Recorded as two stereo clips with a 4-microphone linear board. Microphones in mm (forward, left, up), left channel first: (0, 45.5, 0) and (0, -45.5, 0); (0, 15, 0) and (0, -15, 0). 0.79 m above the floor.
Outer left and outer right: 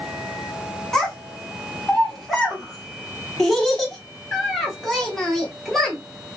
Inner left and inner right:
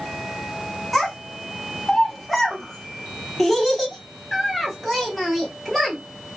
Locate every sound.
0.9 s a child speaking: 5° left (ahead or behind), 0.9 m